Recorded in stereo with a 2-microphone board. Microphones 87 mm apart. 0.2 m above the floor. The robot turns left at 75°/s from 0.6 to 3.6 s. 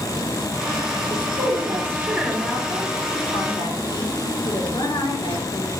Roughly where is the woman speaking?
Right.